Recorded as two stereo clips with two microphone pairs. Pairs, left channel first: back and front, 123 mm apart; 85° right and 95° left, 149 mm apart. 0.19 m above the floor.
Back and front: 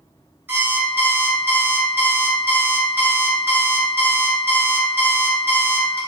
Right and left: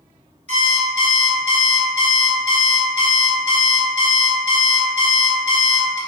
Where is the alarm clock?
70° left, 1.0 m.